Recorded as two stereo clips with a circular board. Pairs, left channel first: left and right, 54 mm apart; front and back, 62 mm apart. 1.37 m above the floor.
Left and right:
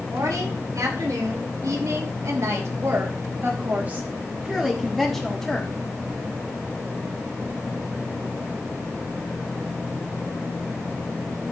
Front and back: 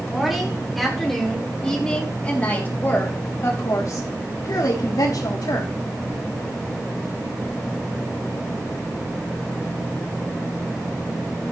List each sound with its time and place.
0.1 s a woman speaking: 95° right, 5.5 m; by 5.7 s 5° left, 3.5 m